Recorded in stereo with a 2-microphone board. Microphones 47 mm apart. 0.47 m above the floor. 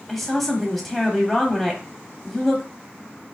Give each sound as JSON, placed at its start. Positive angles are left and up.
{"t": 0.1, "sound": "a woman speaking", "side_deg": 5, "distance_m": 0.9}